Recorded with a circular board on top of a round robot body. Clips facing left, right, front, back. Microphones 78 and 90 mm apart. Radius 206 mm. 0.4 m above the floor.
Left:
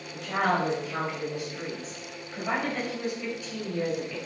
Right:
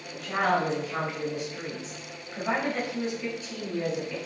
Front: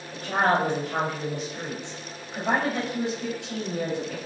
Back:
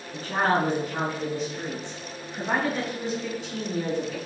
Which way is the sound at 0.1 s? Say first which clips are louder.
Even, front 1 dB; 10° right.